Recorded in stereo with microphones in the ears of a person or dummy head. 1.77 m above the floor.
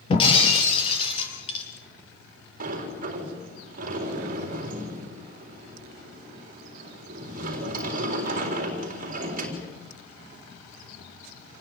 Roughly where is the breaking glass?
Left.